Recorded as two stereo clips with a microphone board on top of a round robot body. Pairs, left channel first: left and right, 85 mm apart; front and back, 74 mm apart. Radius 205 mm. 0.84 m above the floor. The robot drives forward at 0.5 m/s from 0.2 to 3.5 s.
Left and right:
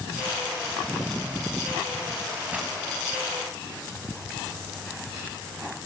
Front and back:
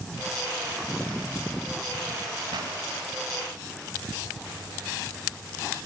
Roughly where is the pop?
Behind.